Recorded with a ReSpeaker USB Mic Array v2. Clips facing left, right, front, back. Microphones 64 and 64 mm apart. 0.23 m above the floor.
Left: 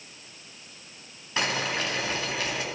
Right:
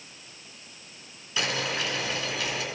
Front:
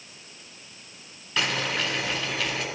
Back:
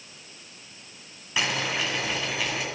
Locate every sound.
1.4 s boiling: 105° left, 2 m